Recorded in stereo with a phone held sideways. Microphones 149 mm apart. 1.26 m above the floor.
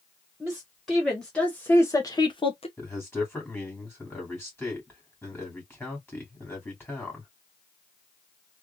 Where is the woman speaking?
5° right (ahead or behind), 1.5 m; by 2.7 s 45° left (ahead or behind), 0.8 m.